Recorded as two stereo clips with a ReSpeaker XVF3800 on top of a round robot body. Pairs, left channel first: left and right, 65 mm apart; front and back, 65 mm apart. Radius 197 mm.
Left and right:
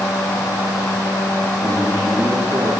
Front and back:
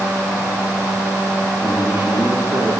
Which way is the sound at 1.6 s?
115° right.